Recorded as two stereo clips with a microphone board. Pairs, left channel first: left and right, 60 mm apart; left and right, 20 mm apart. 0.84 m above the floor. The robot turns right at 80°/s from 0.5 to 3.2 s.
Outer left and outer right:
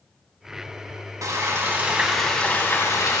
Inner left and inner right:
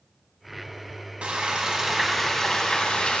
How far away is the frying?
About 1.7 m.